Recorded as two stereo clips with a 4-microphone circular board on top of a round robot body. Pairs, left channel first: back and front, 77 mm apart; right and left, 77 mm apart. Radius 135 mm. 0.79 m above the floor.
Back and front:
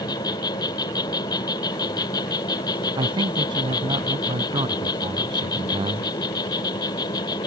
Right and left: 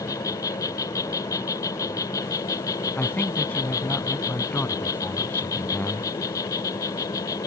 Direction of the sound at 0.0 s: 140° right.